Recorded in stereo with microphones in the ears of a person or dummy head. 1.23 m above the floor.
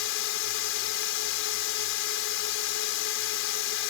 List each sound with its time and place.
0.0 s a drone: 65° left (ahead or behind)